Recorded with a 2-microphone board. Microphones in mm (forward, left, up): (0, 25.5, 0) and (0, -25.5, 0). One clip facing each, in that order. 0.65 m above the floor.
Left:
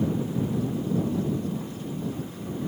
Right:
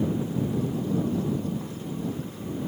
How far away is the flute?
I don't hear a flute.